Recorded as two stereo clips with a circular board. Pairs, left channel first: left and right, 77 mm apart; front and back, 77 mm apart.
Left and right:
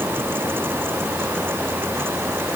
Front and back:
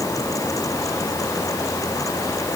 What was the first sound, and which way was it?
Only background noise.